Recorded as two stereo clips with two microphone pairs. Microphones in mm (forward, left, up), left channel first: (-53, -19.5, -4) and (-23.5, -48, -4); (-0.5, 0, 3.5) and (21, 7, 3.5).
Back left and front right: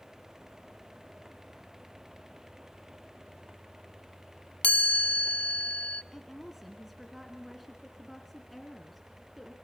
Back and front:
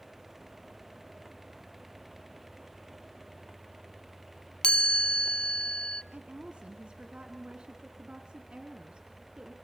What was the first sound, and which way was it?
A chime, straight behind.